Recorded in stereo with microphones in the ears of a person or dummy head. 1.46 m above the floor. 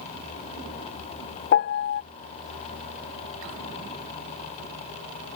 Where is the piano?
40° left (ahead or behind).